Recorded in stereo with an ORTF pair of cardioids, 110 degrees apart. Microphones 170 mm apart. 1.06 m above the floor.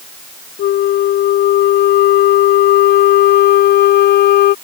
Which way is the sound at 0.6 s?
70° left.